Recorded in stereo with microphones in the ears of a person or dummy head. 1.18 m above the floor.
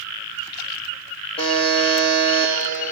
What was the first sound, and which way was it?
A buzzer, 25° left (ahead or behind).